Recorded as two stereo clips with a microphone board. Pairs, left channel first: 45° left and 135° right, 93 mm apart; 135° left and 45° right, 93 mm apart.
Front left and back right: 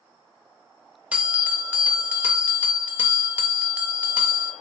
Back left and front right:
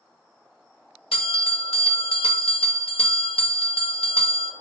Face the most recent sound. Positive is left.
turn(degrees=150)